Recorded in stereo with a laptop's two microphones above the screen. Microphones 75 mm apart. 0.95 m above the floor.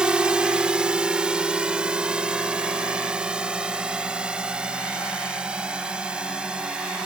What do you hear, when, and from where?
0.0 s a drone: 15° right (ahead or behind)